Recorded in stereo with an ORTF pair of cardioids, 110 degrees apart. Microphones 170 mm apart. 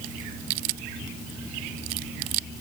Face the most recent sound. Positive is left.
No sound to turn to.